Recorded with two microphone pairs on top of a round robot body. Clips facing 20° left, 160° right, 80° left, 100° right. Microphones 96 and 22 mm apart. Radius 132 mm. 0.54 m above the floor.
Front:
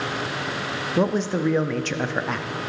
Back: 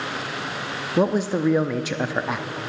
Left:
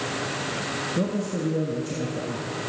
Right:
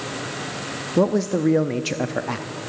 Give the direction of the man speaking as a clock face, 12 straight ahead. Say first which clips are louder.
Back 2 dB, right 11 dB; 3 o'clock.